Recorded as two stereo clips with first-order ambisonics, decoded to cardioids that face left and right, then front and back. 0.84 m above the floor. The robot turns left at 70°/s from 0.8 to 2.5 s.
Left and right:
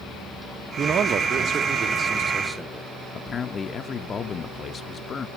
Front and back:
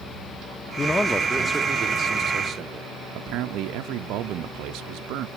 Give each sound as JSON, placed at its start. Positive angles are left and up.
{"t": 0.8, "sound": "a man speaking", "azimuth_deg": -60, "distance_m": 0.6}
{"t": 3.1, "sound": "a man speaking", "azimuth_deg": 155, "distance_m": 0.5}